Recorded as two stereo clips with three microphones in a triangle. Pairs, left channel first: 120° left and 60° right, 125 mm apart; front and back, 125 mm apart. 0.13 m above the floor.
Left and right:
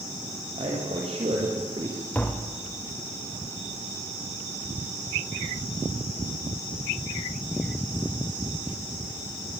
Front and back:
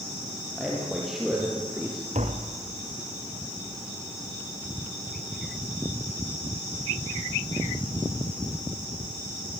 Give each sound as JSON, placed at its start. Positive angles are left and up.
{"t": 0.6, "sound": "a man speaking", "azimuth_deg": -90, "distance_m": 5.5}
{"t": 2.1, "sound": "tapping", "azimuth_deg": -165, "distance_m": 3.0}